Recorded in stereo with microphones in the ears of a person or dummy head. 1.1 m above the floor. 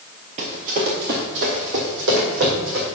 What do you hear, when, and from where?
0.4 s running footsteps: 40° right (ahead or behind), 1.4 m; by 2.9 s 65° right (ahead or behind), 3.5 m